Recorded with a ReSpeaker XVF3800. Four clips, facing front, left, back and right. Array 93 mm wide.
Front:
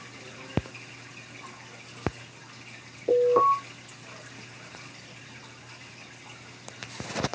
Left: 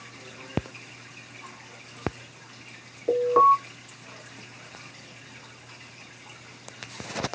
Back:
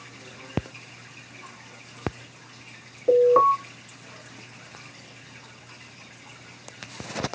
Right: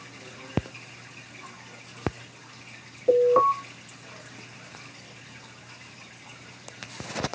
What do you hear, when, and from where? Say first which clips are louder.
3.1 s an alarm: even, back 4 dB; 170° right, 1.7 m